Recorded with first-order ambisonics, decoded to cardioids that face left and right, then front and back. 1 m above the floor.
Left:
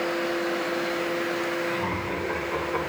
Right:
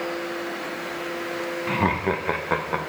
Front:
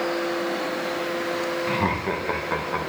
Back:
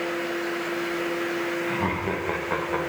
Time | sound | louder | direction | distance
1.7 | laughter | right 5 dB, front 2 dB | 65° right | 0.6 m